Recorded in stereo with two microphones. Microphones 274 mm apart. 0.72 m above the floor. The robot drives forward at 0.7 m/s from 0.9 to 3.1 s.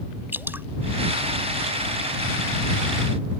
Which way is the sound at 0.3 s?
5° right (ahead or behind).